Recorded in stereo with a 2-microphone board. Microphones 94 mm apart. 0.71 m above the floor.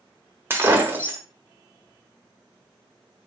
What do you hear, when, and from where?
0.5 s breaking glass: 25° right (ahead or behind), 0.6 m